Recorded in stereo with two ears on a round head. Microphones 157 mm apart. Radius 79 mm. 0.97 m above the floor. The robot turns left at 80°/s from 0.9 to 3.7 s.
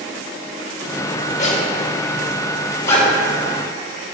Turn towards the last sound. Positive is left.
turn(degrees=-50)  # may be behind; listen again after turning